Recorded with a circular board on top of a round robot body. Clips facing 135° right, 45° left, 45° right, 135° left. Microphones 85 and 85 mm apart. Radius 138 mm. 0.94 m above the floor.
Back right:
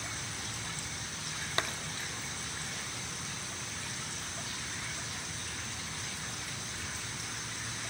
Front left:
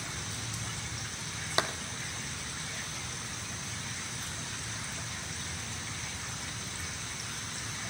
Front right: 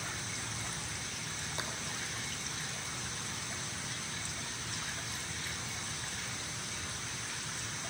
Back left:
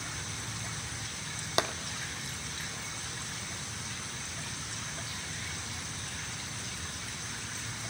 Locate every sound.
1.6 s tapping: 120° left, 0.9 m